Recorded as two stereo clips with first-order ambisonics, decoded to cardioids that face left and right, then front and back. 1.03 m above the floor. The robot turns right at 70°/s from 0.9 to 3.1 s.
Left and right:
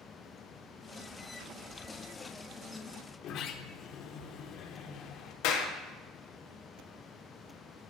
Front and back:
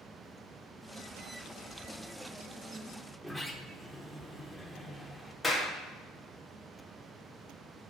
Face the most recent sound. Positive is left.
turn(degrees=85)